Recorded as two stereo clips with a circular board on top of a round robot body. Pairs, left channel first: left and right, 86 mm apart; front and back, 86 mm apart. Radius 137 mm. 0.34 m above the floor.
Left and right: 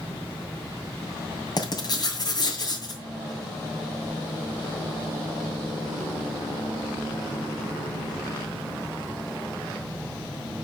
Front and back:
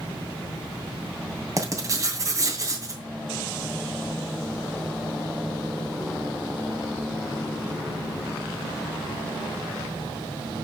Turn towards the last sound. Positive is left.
turn(degrees=130)